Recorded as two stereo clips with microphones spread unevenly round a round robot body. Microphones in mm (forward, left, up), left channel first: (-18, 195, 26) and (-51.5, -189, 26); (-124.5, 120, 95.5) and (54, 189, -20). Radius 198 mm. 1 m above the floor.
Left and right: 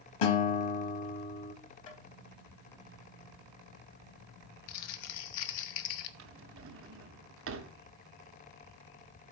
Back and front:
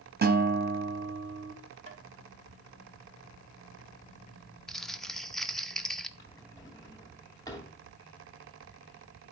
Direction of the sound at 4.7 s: 110° left.